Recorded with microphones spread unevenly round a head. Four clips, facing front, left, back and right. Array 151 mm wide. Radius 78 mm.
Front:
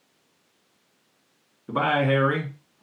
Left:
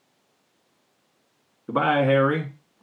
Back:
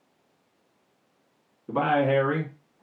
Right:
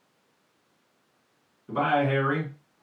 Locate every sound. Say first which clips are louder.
1.7 s a man speaking: left 4 dB, even; 100° left, 1.6 m